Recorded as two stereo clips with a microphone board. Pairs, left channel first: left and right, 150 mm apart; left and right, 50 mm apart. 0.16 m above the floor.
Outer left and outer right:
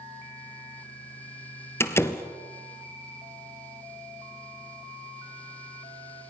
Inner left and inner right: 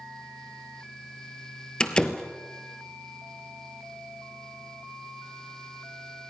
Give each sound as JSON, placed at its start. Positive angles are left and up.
{"t": 1.8, "sound": "a door slam", "side_deg": 15, "distance_m": 2.0}